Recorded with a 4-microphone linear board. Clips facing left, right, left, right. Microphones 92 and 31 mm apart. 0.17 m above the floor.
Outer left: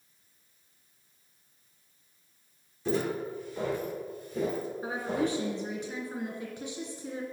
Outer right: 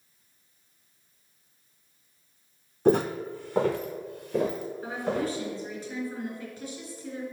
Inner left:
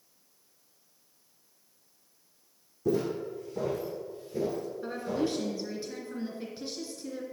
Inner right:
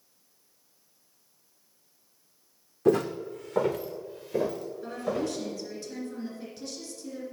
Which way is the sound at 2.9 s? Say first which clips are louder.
Outer right 7 dB, inner right 5 dB; 60° right (ahead or behind).